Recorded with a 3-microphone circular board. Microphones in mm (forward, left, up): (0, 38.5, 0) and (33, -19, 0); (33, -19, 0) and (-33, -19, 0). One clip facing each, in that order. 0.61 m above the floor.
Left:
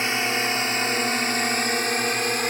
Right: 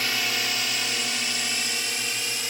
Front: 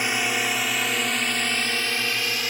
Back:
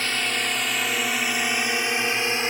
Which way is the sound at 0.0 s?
70° left.